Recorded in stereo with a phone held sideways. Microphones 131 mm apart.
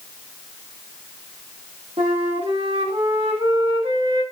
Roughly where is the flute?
Right.